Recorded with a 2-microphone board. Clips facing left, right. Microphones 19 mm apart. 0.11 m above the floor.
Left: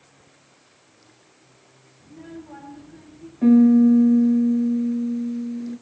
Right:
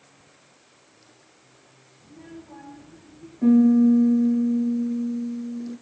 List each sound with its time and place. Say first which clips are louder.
2.0 s a child speaking: left 4 dB; 70° left (ahead or behind), 10 m
3.4 s a piano: left 2 dB; 35° left (ahead or behind), 1.3 m